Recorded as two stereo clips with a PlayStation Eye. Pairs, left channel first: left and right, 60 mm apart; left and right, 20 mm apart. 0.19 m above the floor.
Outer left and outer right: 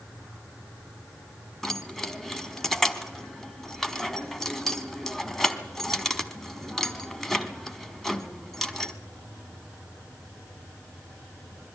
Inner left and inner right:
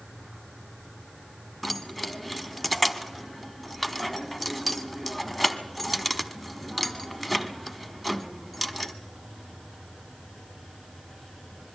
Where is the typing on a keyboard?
I don't hear typing on a keyboard.